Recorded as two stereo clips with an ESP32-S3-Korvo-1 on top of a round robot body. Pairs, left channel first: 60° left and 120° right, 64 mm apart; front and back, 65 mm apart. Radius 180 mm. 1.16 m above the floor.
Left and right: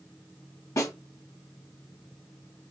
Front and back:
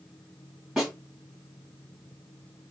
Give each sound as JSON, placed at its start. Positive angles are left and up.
{"t": 0.8, "sound": "a snare drum", "azimuth_deg": 95, "distance_m": 2.5}